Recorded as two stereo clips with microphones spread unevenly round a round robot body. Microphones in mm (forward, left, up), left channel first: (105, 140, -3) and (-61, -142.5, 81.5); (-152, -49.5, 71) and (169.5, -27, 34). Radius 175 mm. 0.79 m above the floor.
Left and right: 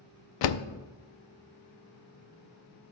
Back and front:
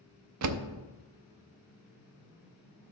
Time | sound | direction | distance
0.4 | a door slam | 45° left | 0.6 m